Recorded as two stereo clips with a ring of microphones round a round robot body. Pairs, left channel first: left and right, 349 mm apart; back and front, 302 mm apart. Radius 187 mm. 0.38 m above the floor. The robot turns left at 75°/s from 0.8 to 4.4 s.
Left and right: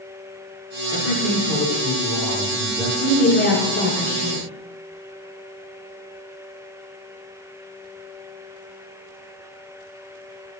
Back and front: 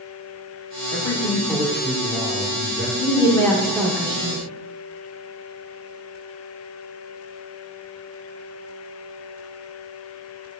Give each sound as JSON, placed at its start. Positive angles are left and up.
{"t": 0.9, "sound": "a man speaking", "azimuth_deg": 120, "distance_m": 1.4}
{"t": 3.0, "sound": "a woman speaking", "azimuth_deg": 140, "distance_m": 0.9}